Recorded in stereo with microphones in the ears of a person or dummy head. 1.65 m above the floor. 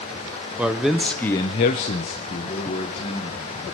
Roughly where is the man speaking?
Centre.